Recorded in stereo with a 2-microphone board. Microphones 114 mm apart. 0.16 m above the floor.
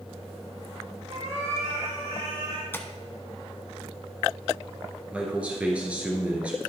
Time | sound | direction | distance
1.1 | a cat meowing | 80° right | 3 m
2.7 | tapping | 20° left (ahead or behind) | 0.8 m
5.1 | a man speaking | 10° right (ahead or behind) | 2.5 m